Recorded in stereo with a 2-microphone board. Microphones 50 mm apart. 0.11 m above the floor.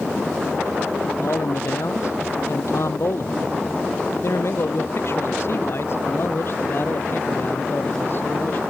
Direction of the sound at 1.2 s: 70° left (ahead or behind).